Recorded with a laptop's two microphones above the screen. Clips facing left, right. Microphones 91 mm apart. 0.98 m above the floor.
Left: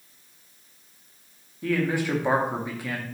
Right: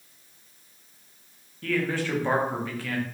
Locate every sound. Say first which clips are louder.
1.6 s a man speaking: left 2 dB; 15° left (ahead or behind), 0.7 m